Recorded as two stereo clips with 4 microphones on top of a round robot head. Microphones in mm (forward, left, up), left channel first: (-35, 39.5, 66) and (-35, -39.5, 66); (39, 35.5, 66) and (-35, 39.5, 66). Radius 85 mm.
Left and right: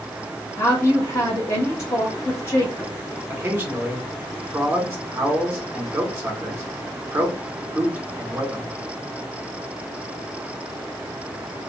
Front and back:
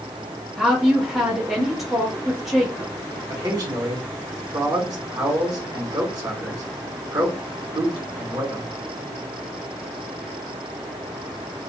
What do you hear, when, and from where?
0.6 s a woman speaking: 90° left, 1.3 m
3.3 s a man speaking: 160° right, 1.6 m